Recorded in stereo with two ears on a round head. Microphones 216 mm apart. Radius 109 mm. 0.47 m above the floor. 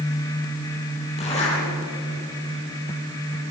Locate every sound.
1.2 s a zipper: 30° left (ahead or behind), 9 m